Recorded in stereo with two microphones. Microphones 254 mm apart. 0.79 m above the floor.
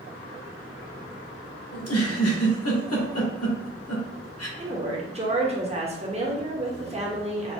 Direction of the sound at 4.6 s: 25° right (ahead or behind).